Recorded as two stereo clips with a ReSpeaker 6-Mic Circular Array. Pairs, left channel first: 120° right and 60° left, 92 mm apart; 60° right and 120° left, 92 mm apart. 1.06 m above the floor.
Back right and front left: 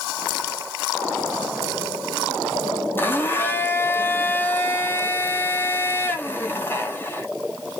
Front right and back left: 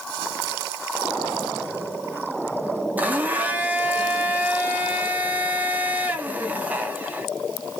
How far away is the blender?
About 0.6 m.